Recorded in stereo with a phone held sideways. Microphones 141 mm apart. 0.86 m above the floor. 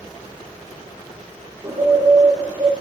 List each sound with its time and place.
1.6 s a bird: 20° right (ahead or behind), 7 m